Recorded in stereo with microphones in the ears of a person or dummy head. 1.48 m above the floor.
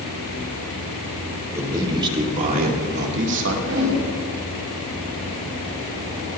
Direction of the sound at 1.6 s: 20° right (ahead or behind).